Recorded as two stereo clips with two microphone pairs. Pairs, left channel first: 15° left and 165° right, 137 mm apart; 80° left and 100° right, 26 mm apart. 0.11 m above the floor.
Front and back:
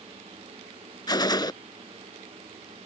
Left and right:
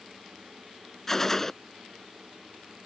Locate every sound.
1.1 s a gunshot: 25° left